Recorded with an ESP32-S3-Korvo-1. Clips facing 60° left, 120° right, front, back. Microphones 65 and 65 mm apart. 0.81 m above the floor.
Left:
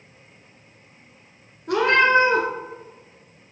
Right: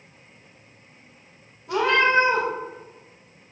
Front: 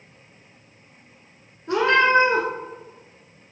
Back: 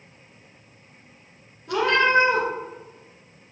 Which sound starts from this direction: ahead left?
A cat meowing, at 1.7 s.